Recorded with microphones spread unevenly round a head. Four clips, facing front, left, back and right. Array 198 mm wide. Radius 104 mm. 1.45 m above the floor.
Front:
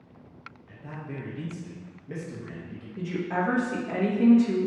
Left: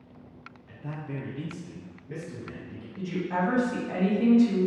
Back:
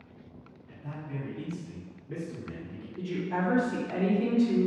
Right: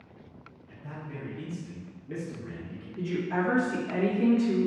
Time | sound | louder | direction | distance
0.7 | a man speaking | left 4 dB, front 1 dB | 70° left | 0.8 m
3.0 | a woman speaking | even, front 3 dB | 10° left | 1.5 m